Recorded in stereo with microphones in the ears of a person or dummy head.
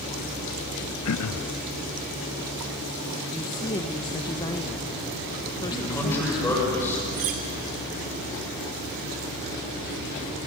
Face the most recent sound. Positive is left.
turn(degrees=-40)  # may be behind; listen again after turning